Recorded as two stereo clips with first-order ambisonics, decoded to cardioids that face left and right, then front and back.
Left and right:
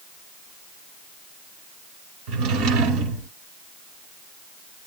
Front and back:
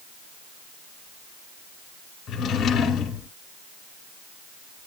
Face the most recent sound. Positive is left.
turn(degrees=-60)